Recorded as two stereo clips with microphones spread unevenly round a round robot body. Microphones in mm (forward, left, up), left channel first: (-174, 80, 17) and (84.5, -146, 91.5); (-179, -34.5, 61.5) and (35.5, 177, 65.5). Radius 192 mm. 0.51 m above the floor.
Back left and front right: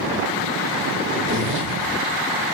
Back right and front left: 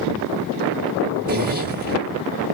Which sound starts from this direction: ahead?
A zipper, at 1.3 s.